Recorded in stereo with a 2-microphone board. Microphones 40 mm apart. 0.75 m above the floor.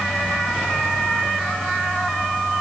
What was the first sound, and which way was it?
Only background noise.